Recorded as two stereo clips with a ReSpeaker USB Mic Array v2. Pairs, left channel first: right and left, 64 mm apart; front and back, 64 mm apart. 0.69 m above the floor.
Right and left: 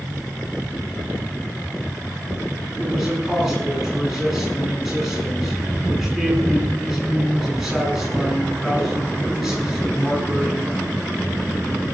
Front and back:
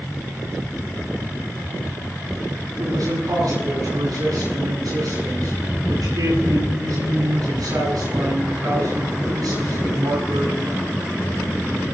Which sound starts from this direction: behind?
A man speaking, at 2.8 s.